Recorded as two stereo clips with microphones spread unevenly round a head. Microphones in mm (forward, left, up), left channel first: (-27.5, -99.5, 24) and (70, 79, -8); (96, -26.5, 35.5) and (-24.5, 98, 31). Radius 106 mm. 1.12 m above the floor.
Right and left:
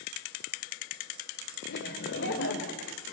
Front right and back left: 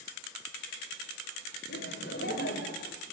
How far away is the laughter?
About 3.5 m.